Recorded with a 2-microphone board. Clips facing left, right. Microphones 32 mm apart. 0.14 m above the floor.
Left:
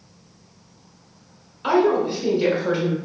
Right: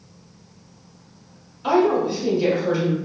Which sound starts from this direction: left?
A woman speaking, at 1.6 s.